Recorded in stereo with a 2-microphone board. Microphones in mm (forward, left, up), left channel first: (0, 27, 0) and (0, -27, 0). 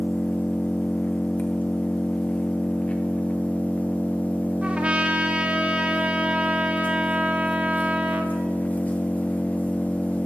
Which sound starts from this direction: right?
A trumpet, at 4.6 s.